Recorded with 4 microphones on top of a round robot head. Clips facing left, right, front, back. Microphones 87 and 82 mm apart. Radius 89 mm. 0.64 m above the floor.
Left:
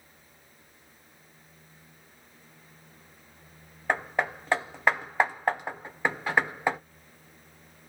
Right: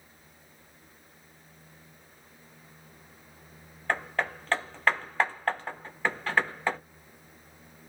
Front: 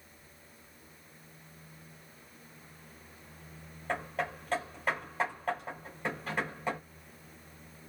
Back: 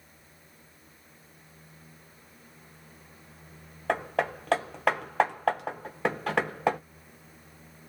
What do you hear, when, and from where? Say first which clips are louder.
3.9 s hammering: left 2 dB, back 7 dB; 165° left, 0.6 m